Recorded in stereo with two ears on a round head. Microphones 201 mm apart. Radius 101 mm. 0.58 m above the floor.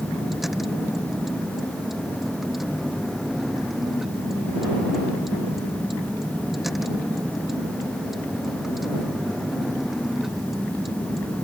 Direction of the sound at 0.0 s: Centre (ahead or behind).